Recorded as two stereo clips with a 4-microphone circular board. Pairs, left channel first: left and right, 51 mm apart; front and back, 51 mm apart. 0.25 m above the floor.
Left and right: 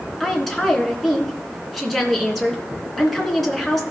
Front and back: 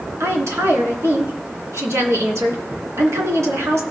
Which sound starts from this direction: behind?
A woman speaking, at 0.2 s.